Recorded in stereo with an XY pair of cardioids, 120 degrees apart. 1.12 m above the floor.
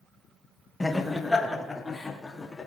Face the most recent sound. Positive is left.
turn(degrees=20)